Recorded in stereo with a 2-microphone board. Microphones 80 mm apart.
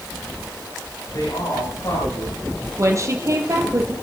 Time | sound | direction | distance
1.1 | a man speaking | 50° left (ahead or behind) | 8.5 m
2.8 | a woman speaking | 40° right (ahead or behind) | 3 m